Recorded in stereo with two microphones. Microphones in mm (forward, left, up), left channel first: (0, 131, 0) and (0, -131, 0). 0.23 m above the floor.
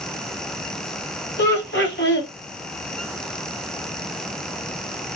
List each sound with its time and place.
1.4 s laughter: 45° left (ahead or behind), 1.9 m